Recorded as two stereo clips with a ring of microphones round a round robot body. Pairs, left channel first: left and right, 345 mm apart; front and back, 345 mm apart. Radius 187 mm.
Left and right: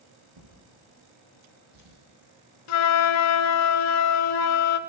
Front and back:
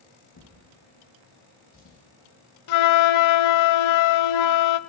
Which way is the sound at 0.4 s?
50° right.